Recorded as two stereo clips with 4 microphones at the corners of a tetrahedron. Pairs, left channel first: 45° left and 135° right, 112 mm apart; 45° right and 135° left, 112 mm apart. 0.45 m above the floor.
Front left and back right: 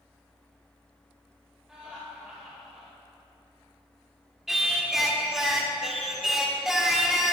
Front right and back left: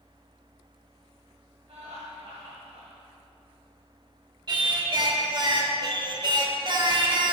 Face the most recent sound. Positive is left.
turn(degrees=140)